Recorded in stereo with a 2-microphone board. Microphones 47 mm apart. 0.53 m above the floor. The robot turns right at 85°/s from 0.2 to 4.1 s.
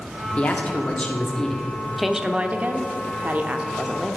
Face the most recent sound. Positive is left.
turn(degrees=0)